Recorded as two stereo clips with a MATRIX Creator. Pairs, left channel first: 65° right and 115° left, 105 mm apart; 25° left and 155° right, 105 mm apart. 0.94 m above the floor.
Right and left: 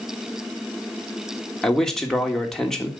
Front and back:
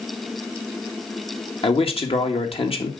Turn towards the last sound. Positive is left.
turn(degrees=15)